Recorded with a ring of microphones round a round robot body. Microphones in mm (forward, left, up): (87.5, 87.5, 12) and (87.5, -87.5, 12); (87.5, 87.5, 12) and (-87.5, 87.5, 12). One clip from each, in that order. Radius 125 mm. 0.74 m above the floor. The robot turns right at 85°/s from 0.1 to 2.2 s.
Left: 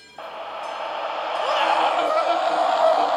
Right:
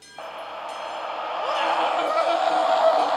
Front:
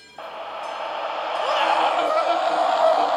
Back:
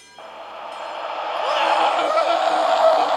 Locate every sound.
0.2 s a scream: 5° left, 0.5 m; by 3.2 s 175° left, 0.5 m